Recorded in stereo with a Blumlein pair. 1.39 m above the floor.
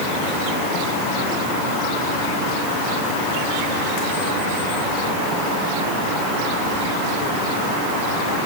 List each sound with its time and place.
Only background noise.